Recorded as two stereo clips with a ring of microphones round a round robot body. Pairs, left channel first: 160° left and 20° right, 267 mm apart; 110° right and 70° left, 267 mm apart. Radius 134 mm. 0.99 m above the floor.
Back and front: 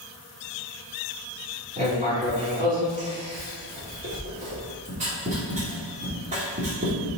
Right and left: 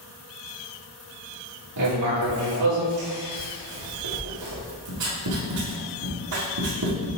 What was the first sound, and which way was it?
Writing, 40° left.